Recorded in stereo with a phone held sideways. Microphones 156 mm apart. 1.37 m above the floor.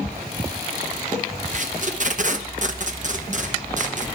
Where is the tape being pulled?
55° right (ahead or behind), 0.8 m.